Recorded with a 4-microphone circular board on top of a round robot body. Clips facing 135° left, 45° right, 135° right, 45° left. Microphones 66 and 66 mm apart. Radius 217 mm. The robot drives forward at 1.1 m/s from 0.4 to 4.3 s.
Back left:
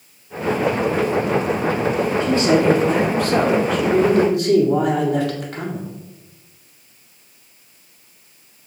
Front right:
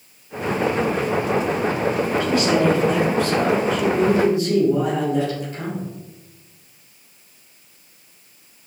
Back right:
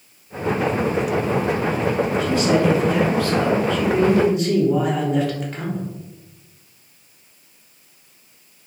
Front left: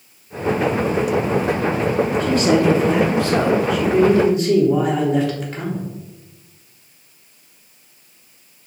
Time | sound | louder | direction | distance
2.2 | a man speaking | back left 2 dB, front left 2 dB | 75° left | 2.5 m